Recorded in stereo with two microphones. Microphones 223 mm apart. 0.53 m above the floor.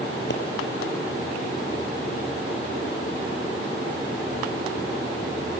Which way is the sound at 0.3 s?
55° left (ahead or behind).